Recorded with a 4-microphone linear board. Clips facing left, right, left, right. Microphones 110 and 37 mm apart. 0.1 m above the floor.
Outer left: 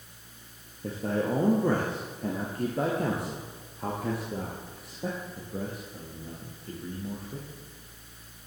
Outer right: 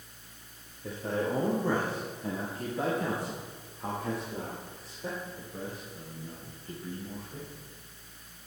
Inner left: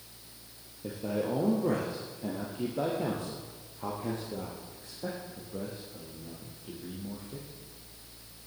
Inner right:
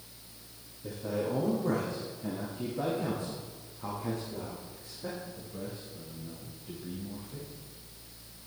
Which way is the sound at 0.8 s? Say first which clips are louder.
Outer left 3 dB, inner left 1 dB; 45° left (ahead or behind).